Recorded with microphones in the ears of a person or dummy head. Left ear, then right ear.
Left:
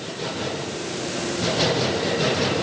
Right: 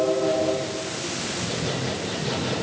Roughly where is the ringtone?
I don't hear a ringtone.